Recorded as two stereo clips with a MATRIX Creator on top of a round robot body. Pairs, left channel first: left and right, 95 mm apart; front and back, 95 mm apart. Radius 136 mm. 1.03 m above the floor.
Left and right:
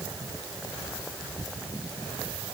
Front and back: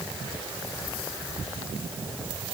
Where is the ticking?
No ticking in this recording.